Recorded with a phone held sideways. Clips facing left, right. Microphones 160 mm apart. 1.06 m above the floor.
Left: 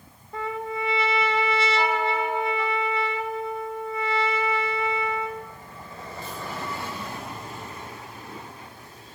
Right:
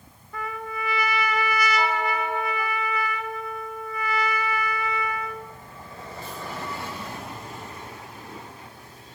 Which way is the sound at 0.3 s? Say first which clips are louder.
Left 3 dB; 30° left (ahead or behind).